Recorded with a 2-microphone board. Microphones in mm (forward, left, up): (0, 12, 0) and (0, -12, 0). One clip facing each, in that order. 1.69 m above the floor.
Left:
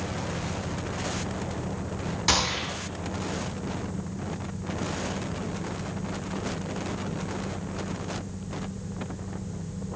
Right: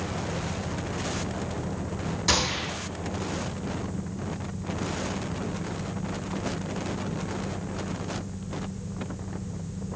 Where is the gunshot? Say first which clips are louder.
Left 1 dB; 15° left (ahead or behind), 4.5 m.